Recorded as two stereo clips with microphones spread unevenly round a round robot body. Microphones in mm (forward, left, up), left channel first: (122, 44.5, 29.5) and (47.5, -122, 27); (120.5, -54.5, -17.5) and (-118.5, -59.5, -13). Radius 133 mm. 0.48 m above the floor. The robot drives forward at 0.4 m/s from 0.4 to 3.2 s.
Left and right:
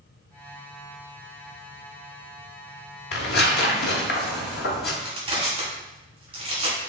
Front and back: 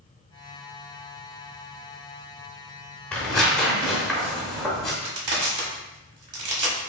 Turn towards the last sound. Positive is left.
turn(degrees=175)